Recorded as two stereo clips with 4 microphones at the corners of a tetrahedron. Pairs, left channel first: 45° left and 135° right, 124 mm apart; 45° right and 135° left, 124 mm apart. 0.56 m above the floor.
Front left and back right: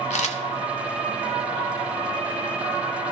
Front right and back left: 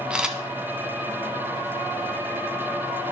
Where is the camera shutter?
50° left, 0.8 m.